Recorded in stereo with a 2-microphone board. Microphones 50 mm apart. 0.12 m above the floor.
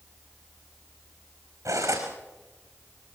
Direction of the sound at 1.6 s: 75° right (ahead or behind).